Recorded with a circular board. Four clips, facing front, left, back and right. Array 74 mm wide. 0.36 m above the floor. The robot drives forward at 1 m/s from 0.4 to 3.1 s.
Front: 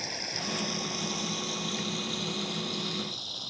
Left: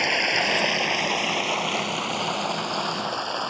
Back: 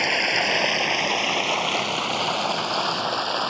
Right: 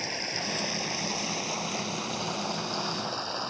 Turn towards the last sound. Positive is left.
turn(degrees=155)